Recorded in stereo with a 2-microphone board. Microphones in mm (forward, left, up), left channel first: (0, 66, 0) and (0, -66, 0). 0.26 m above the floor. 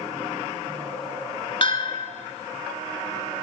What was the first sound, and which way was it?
A bell, 40° left (ahead or behind).